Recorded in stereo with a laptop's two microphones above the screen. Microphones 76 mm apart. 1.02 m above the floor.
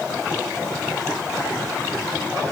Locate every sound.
Only background noise.